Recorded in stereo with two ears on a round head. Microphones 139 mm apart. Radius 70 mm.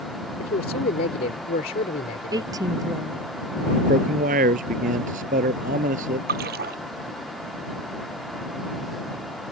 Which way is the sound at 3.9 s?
50° right (ahead or behind).